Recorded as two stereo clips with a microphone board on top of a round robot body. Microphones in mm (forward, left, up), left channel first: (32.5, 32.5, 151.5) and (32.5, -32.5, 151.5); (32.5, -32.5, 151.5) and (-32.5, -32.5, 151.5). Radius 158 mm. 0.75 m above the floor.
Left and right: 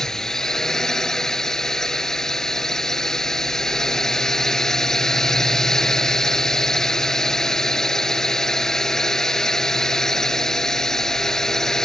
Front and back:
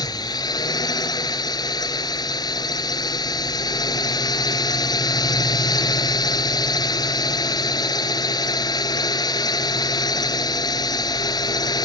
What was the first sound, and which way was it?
A drone, 5° left.